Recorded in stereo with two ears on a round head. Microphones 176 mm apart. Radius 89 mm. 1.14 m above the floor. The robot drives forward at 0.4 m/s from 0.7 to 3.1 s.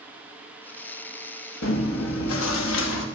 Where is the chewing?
75° left (ahead or behind), 1.4 m; by 3.0 s 80° left, 1.4 m.